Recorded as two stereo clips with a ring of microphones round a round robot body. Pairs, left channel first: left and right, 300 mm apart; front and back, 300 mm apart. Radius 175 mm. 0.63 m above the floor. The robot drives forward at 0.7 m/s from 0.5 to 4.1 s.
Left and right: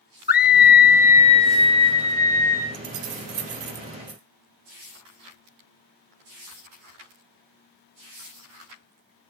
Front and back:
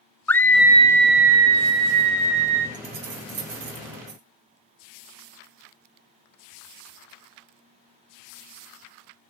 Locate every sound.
0.3 s a scream: 80° left, 0.6 m; by 2.6 s 170° left, 1.5 m
2.7 s keys jangling: 115° right, 1.4 m; by 4.2 s 140° right, 2.0 m